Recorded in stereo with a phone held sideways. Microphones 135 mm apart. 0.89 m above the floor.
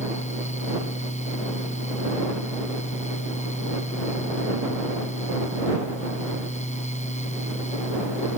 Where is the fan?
60° left (ahead or behind).